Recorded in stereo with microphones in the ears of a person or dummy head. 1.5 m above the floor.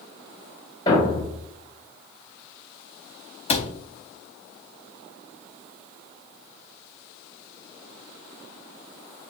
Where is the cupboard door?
35° left (ahead or behind), 0.5 m.